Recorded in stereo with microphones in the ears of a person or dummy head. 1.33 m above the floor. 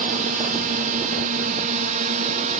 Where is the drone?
45° right (ahead or behind); by 2.6 s 40° right (ahead or behind).